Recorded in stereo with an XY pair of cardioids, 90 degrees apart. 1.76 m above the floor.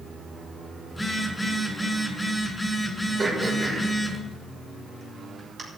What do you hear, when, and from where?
0.9 s a phone buzzing: 10° left, 5 m
3.2 s throat clearing: 35° right, 6 m